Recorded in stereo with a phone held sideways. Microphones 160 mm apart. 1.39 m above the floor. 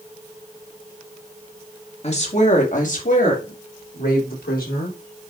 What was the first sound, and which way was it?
A woman speaking, 40° left (ahead or behind).